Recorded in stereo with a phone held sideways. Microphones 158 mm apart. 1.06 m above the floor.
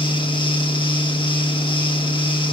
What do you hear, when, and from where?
0.0 s a fan: 35° left (ahead or behind), 0.9 m